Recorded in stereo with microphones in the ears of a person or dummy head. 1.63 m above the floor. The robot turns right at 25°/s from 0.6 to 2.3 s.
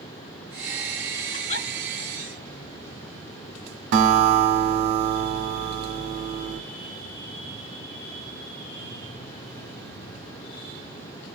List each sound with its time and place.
1.3 s a giggle: 65° left (ahead or behind), 3 m
3.9 s a guitar: 55° right (ahead or behind), 0.9 m